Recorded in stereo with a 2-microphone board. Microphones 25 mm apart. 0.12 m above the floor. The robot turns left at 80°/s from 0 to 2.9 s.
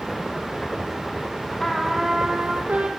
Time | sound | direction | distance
1.6 | a trumpet | 15° left | 3.5 m